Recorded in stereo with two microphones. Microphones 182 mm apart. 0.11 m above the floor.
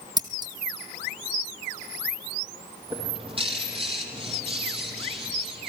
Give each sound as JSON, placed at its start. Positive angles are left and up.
{"t": 0.2, "sound": "scissors", "side_deg": -20, "distance_m": 2.0}
{"t": 2.9, "sound": "a bird", "side_deg": -30, "distance_m": 4.5}